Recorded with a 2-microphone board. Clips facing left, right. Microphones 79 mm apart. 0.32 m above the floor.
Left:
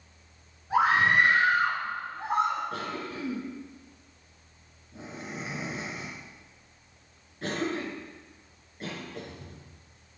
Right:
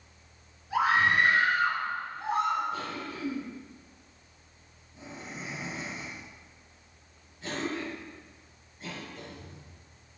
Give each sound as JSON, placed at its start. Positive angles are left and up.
{"t": 0.7, "sound": "a scream", "side_deg": 40, "distance_m": 3.5}
{"t": 2.7, "sound": "a cough", "side_deg": 65, "distance_m": 4.5}